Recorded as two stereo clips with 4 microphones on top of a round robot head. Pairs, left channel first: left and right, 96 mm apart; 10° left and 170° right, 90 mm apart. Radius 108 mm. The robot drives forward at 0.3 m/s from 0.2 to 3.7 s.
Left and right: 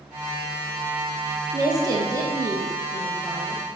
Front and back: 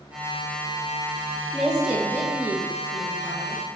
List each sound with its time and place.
1.5 s a woman speaking: 90° right, 0.8 m; by 3.6 s 145° right, 1.0 m